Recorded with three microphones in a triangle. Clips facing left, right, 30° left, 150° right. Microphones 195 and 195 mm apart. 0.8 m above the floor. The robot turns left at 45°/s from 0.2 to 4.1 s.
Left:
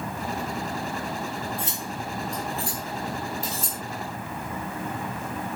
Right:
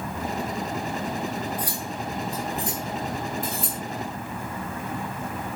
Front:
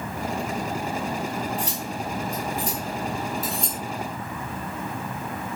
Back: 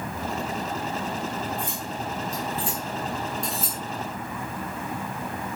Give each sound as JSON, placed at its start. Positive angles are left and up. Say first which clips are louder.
{"t": 1.6, "sound": "cutlery clinking", "louder": "right 2 dB, front 2 dB", "azimuth_deg": 30, "distance_m": 3.0}